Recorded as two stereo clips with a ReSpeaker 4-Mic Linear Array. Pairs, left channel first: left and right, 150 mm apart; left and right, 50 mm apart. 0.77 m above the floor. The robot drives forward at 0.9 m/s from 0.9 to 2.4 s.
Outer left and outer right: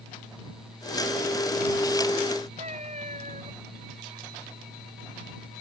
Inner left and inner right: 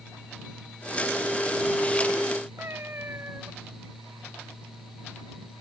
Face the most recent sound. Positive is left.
turn(degrees=-50)  # may be behind; listen again after turning